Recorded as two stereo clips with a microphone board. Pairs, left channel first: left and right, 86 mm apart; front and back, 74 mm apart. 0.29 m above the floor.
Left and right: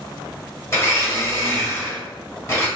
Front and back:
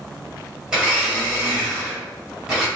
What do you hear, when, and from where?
0.7 s a blender: 110° left, 1.2 m